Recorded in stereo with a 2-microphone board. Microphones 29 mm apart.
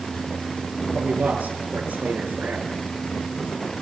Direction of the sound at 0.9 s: 75° right (ahead or behind).